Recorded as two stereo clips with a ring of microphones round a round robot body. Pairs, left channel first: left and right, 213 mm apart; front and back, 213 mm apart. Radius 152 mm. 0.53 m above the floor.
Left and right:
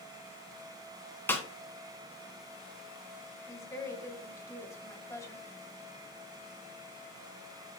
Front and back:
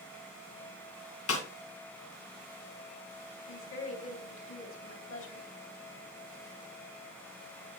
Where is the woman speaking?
15° left, 3 m.